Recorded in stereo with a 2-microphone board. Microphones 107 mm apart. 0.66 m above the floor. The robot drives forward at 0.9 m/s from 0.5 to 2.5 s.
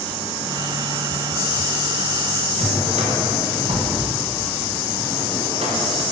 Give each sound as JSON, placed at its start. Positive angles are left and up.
{"t": 2.6, "sound": "a drawer", "side_deg": -85, "distance_m": 2.5}